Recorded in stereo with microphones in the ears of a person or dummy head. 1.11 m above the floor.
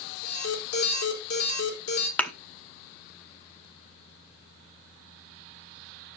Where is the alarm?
80° left, 4.5 m.